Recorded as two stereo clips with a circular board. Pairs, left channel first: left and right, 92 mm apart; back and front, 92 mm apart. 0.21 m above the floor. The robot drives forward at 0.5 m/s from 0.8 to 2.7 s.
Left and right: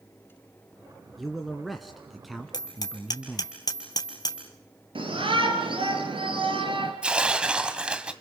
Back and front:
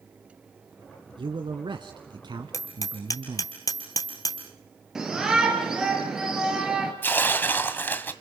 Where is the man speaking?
Straight ahead, 2 m.